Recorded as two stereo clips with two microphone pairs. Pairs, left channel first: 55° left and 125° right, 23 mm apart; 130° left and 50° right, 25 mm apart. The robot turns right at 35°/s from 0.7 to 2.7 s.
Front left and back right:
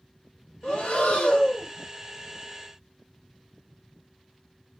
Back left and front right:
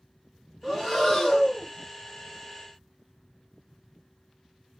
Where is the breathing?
35° left, 0.8 m; by 1.7 s 70° left, 0.8 m.